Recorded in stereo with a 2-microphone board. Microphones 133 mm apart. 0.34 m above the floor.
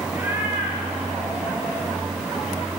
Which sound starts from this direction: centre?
A cat meowing, at 0.1 s.